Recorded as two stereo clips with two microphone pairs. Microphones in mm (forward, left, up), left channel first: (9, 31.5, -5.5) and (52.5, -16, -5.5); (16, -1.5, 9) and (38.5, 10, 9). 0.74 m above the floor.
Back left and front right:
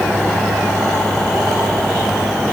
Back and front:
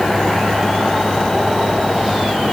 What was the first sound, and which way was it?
Only background noise.